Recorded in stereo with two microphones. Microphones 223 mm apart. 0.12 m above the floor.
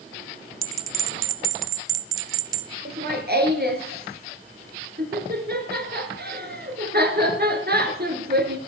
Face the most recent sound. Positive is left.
turn(degrees=-50)  # may be behind; listen again after turning